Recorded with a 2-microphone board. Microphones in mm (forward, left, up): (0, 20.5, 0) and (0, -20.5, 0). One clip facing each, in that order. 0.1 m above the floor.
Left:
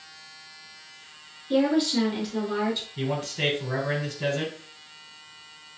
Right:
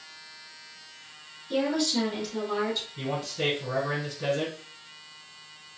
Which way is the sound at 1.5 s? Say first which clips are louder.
Left 4 dB; 25° left (ahead or behind).